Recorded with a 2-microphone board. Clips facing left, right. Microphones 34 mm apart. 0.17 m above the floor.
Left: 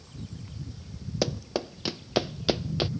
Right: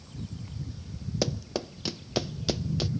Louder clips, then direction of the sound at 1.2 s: Left 2 dB; 10° left (ahead or behind).